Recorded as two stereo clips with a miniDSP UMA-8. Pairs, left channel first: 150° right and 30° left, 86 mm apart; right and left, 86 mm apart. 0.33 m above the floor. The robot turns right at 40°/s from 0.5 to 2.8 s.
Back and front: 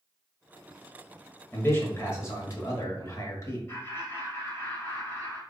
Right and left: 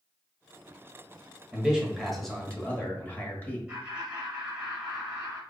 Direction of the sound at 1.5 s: 160° left.